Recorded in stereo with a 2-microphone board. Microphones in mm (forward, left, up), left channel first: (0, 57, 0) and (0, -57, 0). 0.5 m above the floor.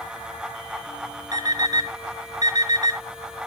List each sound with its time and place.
1.3 s an alarm clock: 35° right (ahead or behind), 4 m